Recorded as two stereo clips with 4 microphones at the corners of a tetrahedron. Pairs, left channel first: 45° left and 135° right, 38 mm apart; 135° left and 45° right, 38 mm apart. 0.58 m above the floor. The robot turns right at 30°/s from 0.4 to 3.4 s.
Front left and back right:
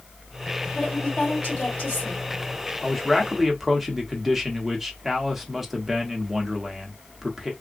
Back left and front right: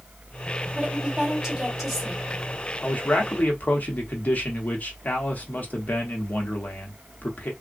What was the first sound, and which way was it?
A woman speaking, 5° left.